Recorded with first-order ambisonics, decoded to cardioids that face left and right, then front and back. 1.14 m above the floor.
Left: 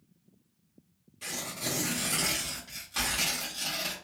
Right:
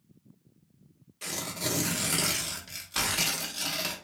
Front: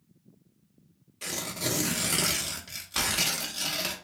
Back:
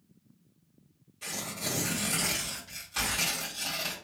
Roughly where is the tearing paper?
Ahead right.